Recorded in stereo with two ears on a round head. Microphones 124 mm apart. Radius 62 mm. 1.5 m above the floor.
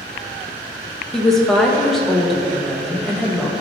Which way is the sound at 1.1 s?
5° left (ahead or behind).